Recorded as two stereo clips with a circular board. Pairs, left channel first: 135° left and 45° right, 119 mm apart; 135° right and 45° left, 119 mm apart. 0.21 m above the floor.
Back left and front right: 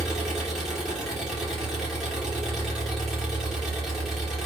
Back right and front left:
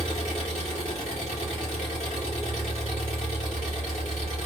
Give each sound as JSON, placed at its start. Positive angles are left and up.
{"t": 0.0, "sound": "an engine running", "azimuth_deg": -135, "distance_m": 1.6}